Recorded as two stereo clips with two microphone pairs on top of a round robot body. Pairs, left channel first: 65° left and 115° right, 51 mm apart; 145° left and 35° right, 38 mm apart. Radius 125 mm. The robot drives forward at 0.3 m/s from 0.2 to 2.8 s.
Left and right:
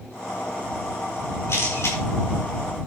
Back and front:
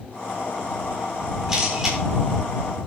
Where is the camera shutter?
40° left, 7 m.